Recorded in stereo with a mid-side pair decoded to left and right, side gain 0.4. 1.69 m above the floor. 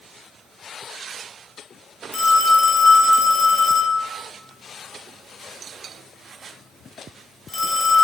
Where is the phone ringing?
35° left, 1.9 m.